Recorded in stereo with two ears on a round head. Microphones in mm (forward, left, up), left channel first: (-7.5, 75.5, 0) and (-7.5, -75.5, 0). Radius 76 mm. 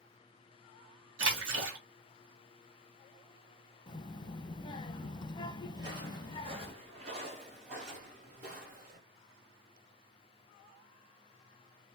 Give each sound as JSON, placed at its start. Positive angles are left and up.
{"t": 1.2, "sound": "a splash", "side_deg": -85, "distance_m": 1.5}
{"t": 3.9, "sound": "a child speaking", "side_deg": 25, "distance_m": 0.8}
{"t": 5.7, "sound": "footsteps", "side_deg": -25, "distance_m": 1.8}